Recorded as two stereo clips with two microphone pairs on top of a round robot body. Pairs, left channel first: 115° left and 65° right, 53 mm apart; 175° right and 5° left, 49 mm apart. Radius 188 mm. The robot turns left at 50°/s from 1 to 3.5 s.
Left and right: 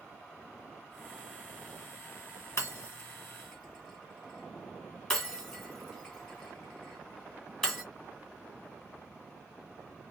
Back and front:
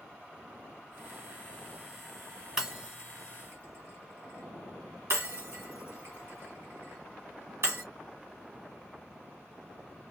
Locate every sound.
2.6 s breaking glass: 80° left, 1.8 m; by 7.8 s 35° left, 1.8 m